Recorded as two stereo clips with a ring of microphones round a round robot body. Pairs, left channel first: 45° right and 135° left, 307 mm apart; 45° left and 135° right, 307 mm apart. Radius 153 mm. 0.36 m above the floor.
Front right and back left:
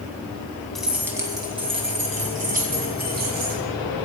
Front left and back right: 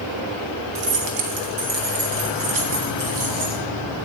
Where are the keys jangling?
135° right, 1.9 m; by 3.6 s 165° right, 5 m.